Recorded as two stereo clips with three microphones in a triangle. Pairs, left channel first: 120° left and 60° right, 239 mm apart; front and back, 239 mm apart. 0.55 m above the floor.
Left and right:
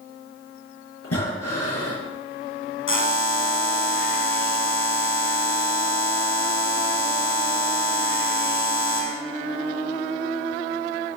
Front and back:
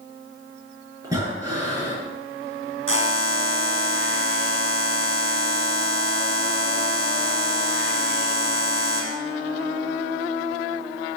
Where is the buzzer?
150° left, 2.5 m.